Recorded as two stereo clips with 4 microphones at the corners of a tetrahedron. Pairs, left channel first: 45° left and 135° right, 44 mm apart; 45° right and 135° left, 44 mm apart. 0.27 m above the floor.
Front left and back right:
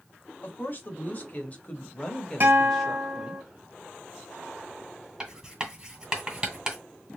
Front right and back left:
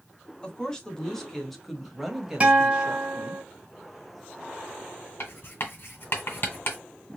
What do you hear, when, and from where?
0.4 s a woman speaking: 20° left, 1.5 m; by 3.4 s 145° left, 1.1 m
2.4 s a guitar: 170° right, 2 m
5.2 s writing: 65° right, 1.8 m